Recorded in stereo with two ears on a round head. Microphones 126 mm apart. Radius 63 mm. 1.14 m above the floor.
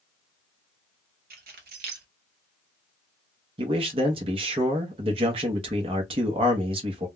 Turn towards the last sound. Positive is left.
turn(degrees=-40)  # may be behind; listen again after turning